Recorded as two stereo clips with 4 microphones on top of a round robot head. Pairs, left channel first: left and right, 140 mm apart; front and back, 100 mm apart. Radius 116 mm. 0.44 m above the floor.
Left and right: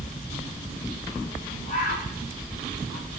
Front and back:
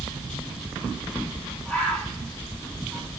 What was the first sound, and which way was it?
A bird, 80° left.